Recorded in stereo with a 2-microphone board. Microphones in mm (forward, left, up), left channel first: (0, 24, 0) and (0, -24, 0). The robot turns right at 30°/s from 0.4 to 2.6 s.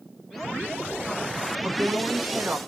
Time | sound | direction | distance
1.6 | a woman speaking | 45° right (ahead or behind) | 0.8 m